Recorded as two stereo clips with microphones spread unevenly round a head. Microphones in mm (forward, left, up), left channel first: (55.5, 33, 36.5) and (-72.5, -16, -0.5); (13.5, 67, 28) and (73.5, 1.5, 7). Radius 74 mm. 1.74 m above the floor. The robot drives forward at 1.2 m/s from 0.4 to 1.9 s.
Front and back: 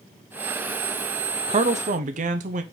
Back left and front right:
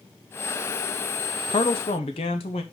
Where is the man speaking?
140° left, 0.6 m; by 2.6 s 160° left, 1.0 m.